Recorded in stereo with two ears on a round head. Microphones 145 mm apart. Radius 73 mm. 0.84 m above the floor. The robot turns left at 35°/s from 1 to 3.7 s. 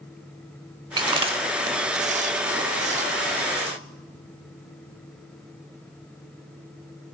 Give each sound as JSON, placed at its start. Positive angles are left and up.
{"t": 1.0, "sound": "chewing", "side_deg": -25, "distance_m": 0.7}